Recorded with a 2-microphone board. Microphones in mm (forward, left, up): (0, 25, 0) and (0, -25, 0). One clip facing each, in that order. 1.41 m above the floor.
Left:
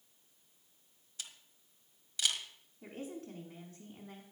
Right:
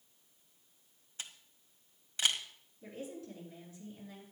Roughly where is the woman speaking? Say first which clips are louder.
Even; left.